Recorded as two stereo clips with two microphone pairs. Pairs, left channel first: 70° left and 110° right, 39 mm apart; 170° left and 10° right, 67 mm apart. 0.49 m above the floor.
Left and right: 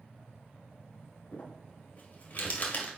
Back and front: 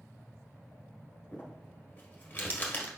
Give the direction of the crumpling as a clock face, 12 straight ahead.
8 o'clock.